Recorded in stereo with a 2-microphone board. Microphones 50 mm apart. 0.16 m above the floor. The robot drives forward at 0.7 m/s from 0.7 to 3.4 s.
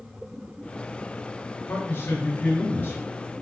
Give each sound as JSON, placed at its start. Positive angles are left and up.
{"t": 1.7, "sound": "a man speaking", "side_deg": 45, "distance_m": 2.5}